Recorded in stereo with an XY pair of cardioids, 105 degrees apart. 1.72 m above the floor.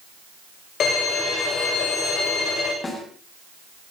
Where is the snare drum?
30° left, 7.5 m.